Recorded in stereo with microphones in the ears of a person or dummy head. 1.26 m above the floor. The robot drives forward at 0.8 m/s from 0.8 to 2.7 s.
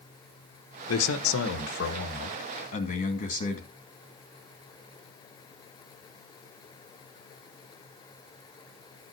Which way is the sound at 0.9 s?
75° left (ahead or behind).